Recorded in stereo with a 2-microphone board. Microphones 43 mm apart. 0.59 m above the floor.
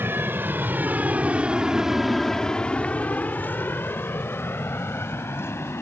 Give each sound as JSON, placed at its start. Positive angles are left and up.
{"t": 0.0, "sound": "an aircraft", "side_deg": -60}